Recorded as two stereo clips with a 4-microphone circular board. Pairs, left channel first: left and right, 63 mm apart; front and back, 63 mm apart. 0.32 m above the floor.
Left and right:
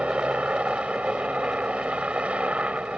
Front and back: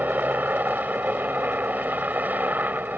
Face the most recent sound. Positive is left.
turn(degrees=-145)